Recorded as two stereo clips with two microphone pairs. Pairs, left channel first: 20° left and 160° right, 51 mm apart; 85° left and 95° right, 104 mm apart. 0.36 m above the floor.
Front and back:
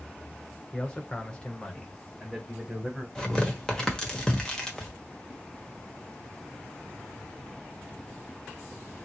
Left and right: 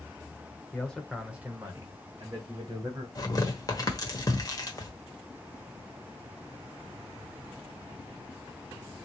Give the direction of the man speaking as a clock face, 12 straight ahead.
11 o'clock.